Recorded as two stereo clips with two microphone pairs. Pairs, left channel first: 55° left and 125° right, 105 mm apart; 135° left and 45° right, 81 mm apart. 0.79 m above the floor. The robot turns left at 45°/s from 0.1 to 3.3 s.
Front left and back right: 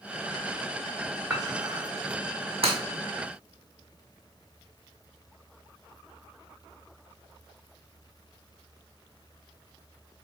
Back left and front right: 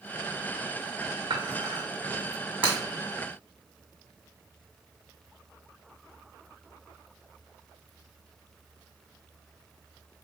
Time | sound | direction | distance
1.3 | dishes clattering | 55° right | 1.7 m
2.6 | breaking glass | 115° right | 2 m